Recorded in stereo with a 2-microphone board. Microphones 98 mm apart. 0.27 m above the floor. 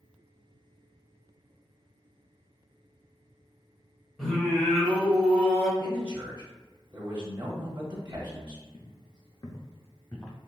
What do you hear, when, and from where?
4.2 s singing: centre (ahead or behind), 1.2 m
5.8 s a man speaking: 20° right (ahead or behind), 1.1 m
8.7 s footsteps: 65° left (ahead or behind), 0.9 m; by 10.4 s 10° left (ahead or behind), 1.2 m